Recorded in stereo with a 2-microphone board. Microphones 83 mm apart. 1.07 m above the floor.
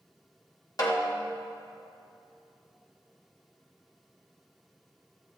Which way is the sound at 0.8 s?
55° left (ahead or behind).